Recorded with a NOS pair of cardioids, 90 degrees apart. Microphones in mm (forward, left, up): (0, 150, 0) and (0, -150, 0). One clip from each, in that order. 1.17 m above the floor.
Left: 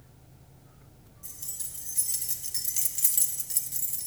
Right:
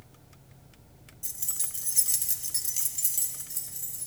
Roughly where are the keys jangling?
Ahead right.